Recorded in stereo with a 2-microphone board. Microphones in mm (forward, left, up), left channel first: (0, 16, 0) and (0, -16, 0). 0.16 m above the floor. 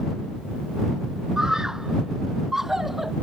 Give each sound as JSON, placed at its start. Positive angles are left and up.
{"t": 1.4, "sound": "a scream", "side_deg": -20}